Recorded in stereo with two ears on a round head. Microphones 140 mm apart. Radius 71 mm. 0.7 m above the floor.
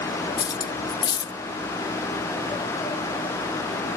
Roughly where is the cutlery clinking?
Left.